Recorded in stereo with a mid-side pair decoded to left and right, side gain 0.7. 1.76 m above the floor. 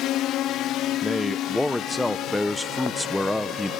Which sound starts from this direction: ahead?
A man speaking, at 1.0 s.